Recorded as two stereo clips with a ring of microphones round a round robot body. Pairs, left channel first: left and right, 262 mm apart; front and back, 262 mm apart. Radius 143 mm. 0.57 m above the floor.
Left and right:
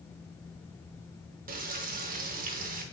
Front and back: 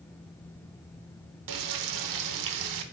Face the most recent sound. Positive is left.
turn(degrees=-155)